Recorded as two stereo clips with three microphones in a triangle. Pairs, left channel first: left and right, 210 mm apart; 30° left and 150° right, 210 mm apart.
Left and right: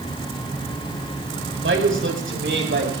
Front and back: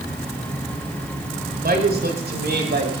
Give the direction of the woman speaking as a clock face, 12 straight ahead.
4 o'clock.